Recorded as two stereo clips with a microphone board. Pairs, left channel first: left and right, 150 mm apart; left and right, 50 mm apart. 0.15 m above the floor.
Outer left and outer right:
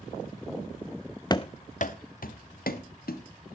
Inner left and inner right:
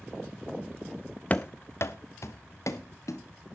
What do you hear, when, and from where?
1.3 s running footsteps: 25° left (ahead or behind), 0.6 m; by 3.2 s 85° left, 2 m